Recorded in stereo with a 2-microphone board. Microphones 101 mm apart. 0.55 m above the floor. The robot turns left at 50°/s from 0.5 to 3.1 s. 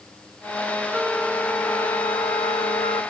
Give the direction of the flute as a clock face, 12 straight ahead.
6 o'clock.